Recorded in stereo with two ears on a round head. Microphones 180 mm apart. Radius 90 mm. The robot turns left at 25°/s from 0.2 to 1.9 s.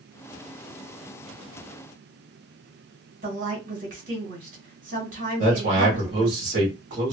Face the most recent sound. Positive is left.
turn(degrees=-40)  # may be behind; listen again after turning